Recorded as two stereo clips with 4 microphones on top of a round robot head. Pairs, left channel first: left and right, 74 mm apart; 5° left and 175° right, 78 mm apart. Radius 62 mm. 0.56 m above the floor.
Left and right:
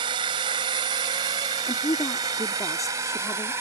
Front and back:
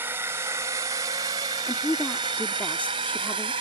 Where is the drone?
105° right; by 3.6 s 155° right.